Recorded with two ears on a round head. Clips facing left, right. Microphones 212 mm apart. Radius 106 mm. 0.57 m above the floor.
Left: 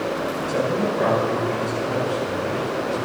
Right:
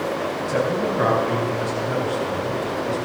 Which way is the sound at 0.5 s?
5° right (ahead or behind).